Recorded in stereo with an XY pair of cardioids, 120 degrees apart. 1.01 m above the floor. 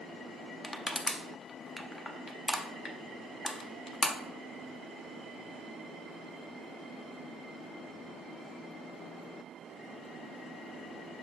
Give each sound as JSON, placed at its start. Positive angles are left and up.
{"t": 0.6, "sound": "crushing", "azimuth_deg": 20, "distance_m": 0.6}